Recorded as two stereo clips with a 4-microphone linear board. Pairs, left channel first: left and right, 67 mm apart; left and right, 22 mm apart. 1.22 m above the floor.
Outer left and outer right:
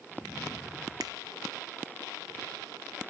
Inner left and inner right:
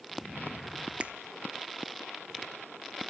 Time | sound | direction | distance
1.0 | a finger snap | 75° right (ahead or behind) | 0.5 m